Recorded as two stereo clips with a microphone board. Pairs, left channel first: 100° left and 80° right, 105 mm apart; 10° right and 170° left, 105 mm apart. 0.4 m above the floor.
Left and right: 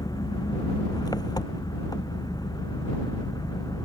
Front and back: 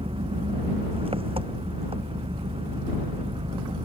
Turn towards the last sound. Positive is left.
turn(degrees=150)